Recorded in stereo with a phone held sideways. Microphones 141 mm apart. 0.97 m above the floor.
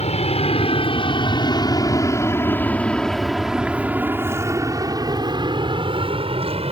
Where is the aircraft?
50° left (ahead or behind); by 6.7 s 45° right (ahead or behind).